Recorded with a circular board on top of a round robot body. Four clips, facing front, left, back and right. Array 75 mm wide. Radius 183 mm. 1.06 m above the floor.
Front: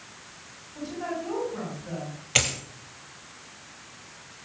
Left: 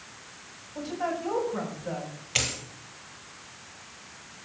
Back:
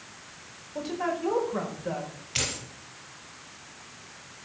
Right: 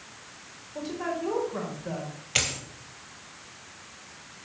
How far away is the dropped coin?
About 3.5 m.